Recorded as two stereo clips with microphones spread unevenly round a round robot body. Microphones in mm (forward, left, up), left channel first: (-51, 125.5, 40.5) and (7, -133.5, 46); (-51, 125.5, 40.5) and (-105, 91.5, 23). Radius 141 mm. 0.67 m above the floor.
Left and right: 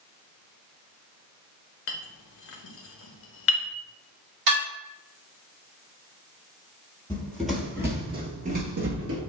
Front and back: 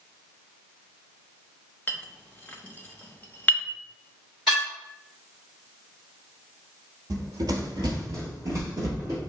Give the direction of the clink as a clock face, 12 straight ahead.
8 o'clock.